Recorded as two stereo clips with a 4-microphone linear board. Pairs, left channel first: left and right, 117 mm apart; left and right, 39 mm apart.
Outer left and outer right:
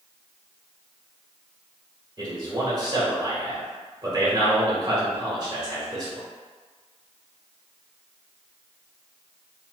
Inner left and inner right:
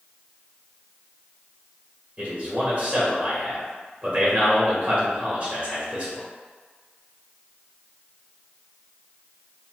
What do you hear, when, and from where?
2.2 s a man speaking: 35° right (ahead or behind), 1.2 m